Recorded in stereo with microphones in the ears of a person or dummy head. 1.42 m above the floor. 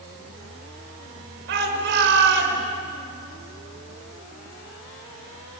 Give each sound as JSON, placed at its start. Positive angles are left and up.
{"t": 1.5, "sound": "a shout", "side_deg": -65, "distance_m": 5.0}